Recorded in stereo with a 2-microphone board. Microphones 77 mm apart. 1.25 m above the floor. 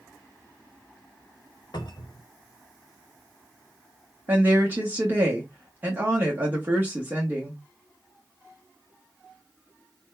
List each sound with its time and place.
1.7 s a cupboard door: 65° left (ahead or behind), 1.1 m
4.3 s a woman speaking: 25° right (ahead or behind), 1.0 m